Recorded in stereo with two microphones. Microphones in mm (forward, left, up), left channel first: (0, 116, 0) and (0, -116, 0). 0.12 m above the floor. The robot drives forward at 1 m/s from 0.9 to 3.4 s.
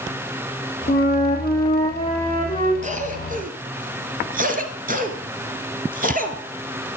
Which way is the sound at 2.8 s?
30° right (ahead or behind).